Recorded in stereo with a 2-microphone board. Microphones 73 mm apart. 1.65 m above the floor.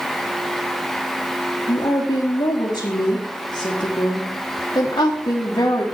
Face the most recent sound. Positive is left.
turn(degrees=70)  # may be behind; listen again after turning